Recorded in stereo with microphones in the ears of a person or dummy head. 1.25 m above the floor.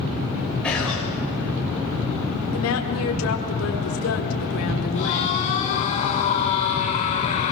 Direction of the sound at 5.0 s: 35° left (ahead or behind).